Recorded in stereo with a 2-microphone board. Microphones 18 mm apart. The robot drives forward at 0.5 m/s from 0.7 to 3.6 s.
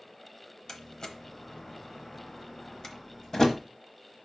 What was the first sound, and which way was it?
A door slam, 35° left (ahead or behind).